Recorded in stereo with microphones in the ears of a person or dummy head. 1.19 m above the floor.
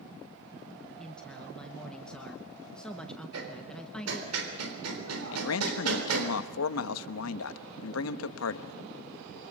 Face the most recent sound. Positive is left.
turn(degrees=85)